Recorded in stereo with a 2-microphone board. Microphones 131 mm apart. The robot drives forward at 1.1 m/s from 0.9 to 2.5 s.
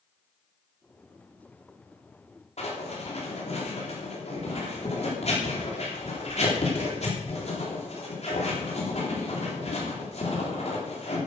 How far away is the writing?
About 3.5 m.